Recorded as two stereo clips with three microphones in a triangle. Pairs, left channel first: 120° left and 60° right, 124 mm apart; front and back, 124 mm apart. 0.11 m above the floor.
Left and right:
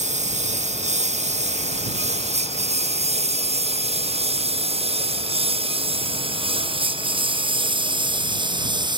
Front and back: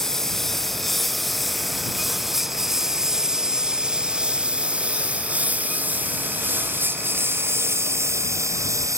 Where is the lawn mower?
90° right; by 9.0 s 115° right.